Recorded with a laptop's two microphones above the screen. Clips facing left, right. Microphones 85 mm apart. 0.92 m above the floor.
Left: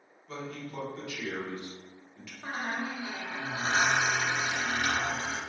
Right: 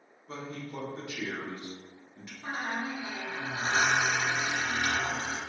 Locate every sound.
0.3 s a man speaking: 30° right (ahead or behind), 0.7 m
2.4 s a squeak: 45° left (ahead or behind), 0.9 m